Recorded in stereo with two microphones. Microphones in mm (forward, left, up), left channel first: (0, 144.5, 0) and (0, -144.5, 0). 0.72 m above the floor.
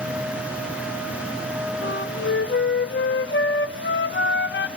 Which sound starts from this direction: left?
A flute, at 1.8 s.